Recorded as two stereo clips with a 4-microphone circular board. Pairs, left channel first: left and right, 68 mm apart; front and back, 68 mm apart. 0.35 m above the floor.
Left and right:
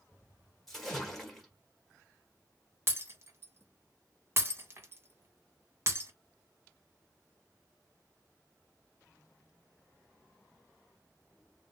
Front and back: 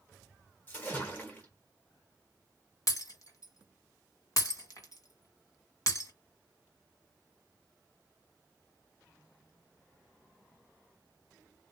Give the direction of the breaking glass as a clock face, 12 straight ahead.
1 o'clock.